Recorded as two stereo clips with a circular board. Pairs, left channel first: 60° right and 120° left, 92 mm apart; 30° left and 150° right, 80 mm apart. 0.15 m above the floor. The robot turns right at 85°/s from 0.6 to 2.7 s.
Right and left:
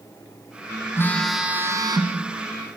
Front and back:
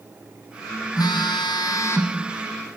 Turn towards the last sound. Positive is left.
turn(degrees=145)